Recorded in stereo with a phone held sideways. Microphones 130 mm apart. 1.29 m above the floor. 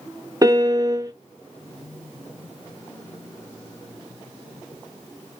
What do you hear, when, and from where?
0.4 s a piano: 30° right (ahead or behind), 0.5 m